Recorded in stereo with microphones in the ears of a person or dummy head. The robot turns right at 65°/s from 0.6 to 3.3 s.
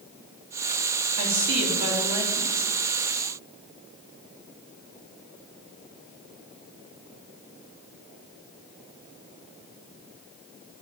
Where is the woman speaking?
85° right, 3 m; by 2.7 s 10° left, 3 m.